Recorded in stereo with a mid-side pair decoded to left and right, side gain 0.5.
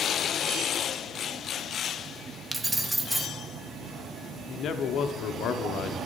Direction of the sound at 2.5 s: 15° right.